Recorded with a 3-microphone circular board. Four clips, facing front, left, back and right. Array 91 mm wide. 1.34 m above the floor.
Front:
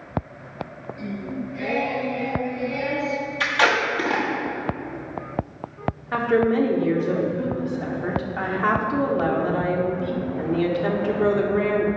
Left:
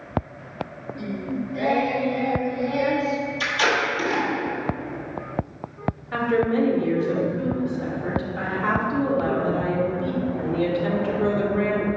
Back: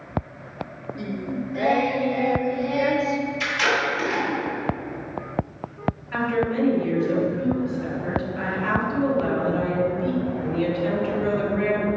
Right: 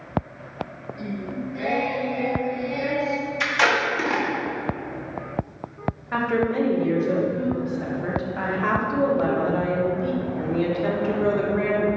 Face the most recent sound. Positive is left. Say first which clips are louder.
# left 1 dB, front 5 dB
turn(degrees=-20)